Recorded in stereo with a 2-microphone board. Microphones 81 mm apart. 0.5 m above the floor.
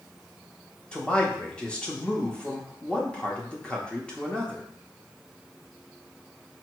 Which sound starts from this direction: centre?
A man speaking, at 0.9 s.